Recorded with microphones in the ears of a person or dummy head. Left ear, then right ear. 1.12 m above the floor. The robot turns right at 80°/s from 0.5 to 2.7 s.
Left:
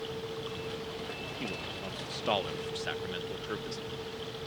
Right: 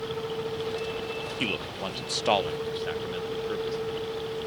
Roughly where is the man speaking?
Right.